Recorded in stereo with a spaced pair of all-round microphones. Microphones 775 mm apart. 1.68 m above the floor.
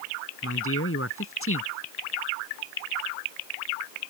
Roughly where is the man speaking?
Centre.